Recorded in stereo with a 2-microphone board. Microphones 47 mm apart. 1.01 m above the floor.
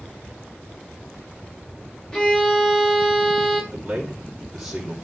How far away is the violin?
About 3 m.